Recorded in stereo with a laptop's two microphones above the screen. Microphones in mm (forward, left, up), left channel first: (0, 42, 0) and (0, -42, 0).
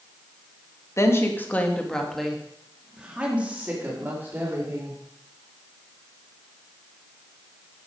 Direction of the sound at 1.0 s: 35° left (ahead or behind).